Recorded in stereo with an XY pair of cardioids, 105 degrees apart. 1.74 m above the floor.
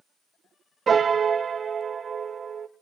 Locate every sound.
0.9 s a piano: 40° right, 0.7 m